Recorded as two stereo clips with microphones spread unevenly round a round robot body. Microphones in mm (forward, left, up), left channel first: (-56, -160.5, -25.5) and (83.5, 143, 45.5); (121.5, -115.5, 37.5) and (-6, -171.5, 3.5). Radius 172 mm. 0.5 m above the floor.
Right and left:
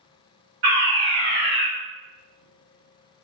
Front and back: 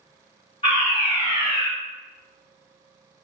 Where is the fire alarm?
20° left, 1.7 m.